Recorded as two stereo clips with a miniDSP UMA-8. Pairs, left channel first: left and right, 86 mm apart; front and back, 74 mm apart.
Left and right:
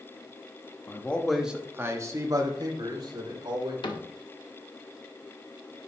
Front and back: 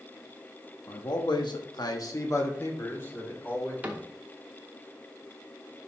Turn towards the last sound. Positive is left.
turn(degrees=115)